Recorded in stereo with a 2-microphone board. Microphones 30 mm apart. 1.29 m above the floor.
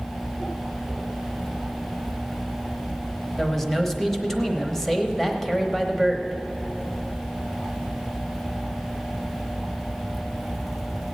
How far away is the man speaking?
About 1.0 m.